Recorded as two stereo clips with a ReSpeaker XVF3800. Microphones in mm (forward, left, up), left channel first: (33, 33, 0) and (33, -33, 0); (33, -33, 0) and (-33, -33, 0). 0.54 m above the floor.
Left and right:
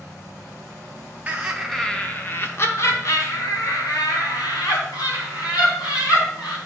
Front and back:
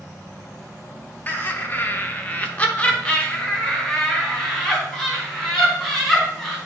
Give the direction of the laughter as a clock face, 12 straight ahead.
1 o'clock.